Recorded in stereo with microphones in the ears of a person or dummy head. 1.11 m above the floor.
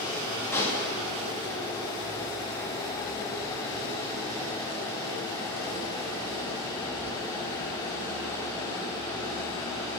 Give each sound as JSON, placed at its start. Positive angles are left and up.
{"t": 0.5, "sound": "a pop", "side_deg": 10, "distance_m": 2.0}